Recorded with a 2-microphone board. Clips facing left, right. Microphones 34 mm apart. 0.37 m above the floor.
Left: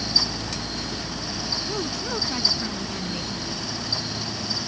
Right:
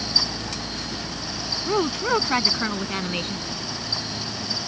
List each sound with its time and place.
1.7 s a woman speaking: 45° right (ahead or behind); by 3.5 s 50° right (ahead or behind)